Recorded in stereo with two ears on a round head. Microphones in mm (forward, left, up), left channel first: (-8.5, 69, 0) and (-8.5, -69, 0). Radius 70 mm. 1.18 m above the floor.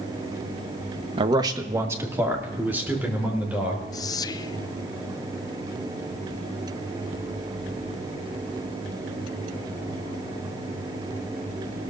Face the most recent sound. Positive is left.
turn(degrees=25)  # may be behind; listen again after turning